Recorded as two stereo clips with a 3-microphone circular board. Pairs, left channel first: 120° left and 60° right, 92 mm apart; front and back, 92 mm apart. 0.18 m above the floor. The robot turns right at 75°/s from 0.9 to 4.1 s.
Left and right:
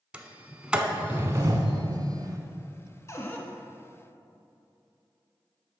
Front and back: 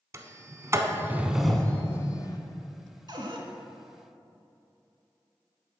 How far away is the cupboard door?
About 0.7 m.